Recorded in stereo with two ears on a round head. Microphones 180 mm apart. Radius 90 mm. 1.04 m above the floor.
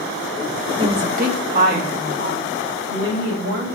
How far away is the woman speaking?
About 0.7 m.